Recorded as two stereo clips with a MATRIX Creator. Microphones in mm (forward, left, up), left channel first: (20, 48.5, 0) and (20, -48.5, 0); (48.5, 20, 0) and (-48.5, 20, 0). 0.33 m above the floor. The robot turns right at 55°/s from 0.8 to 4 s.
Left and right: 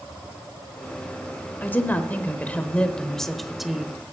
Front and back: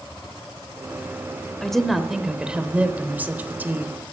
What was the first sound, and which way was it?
A woman speaking, 75° left.